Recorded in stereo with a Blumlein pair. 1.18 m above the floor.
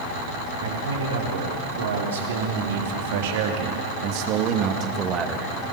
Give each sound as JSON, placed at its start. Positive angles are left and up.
{"t": 0.6, "sound": "a man speaking", "azimuth_deg": -65, "distance_m": 5.0}